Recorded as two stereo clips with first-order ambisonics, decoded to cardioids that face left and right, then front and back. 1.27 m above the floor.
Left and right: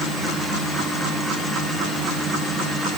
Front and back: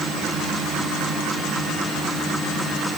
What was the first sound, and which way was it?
Only background noise.